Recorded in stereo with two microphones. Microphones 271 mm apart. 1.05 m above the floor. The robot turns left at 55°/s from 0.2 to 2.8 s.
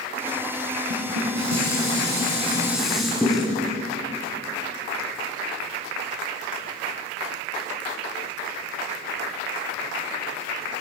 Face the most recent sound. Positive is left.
turn(degrees=180)